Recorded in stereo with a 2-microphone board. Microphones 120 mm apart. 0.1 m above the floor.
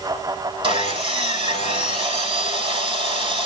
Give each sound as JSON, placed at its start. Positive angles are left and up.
{"t": 0.6, "sound": "sawing", "side_deg": -50, "distance_m": 3.5}